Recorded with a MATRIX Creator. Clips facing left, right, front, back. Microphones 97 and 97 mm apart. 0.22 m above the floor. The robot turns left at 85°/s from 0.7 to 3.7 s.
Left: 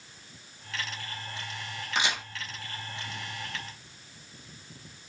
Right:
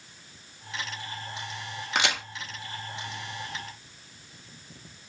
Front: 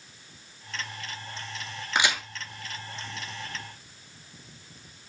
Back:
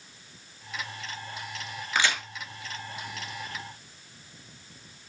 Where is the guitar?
No guitar in this recording.